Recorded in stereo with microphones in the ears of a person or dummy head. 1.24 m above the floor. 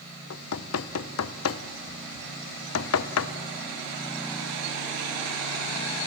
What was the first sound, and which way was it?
Knocking, 75° left (ahead or behind).